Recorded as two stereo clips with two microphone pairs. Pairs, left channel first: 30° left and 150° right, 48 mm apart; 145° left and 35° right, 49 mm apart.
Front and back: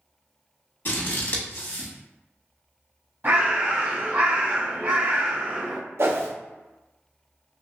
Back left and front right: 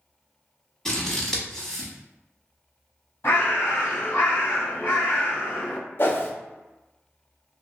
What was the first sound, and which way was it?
Scissors, 65° left.